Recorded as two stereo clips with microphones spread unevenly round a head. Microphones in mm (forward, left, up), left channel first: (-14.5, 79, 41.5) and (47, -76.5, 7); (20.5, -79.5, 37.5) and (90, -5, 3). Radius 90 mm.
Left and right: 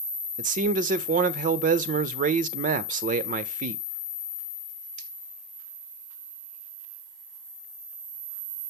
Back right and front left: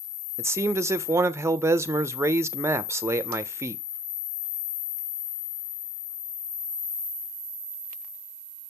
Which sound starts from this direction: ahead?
A man speaking, at 0.4 s.